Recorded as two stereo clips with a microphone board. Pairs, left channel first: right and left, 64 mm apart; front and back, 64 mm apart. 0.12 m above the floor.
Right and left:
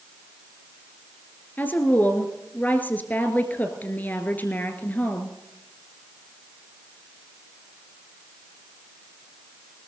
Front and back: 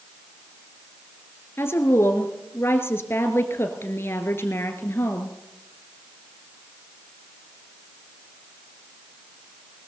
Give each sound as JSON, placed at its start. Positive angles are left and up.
{"t": 1.6, "sound": "a woman speaking", "azimuth_deg": -40, "distance_m": 1.8}